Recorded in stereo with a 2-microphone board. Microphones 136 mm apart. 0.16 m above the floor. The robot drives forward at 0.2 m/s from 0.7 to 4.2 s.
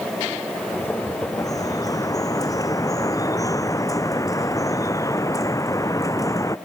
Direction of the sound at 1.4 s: 25° left (ahead or behind).